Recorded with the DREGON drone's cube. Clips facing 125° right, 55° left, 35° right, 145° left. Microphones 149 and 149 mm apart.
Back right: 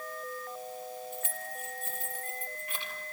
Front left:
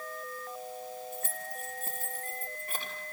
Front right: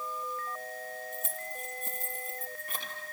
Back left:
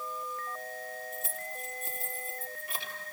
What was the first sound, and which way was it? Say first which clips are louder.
Keys jangling: even, even; 5° left.